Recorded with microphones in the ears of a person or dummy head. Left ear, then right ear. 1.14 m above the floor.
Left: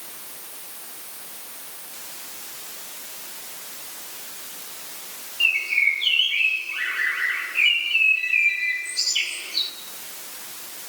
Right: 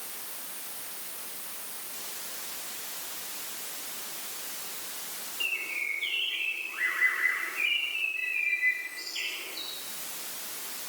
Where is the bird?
80° left, 3.5 m.